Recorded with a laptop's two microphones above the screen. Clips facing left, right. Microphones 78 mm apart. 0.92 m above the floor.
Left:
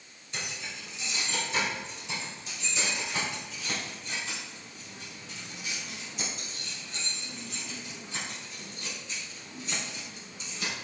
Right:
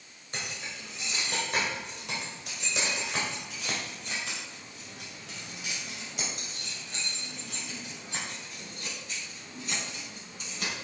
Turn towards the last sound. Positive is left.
turn(degrees=-50)  # may be behind; listen again after turning